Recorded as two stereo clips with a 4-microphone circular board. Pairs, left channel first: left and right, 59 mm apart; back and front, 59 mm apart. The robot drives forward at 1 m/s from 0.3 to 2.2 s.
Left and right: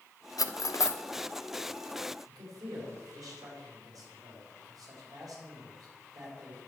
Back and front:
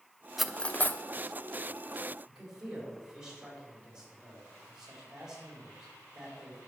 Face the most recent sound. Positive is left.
turn(degrees=-80)